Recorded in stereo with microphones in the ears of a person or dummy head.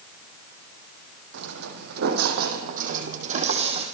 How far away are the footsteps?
About 4 m.